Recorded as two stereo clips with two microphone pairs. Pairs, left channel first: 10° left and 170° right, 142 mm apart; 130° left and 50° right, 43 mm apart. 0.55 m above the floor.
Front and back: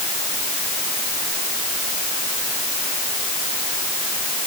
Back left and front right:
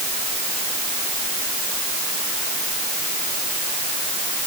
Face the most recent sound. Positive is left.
No sound to turn to.